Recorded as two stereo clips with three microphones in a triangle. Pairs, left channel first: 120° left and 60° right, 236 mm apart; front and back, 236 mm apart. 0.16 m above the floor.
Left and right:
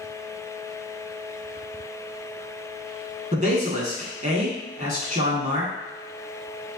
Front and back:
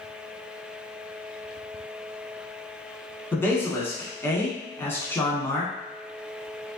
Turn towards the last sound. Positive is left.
turn(degrees=-75)